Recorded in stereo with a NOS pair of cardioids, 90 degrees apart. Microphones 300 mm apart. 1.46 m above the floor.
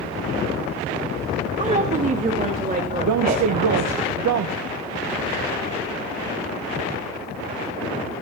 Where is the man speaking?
65° right, 1.5 m.